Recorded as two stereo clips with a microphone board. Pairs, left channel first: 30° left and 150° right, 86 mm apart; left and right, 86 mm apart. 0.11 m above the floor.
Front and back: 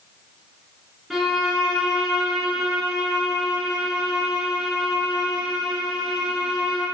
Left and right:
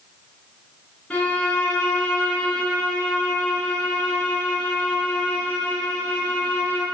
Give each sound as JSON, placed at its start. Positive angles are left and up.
{"t": 1.1, "sound": "a violin", "azimuth_deg": 125, "distance_m": 1.8}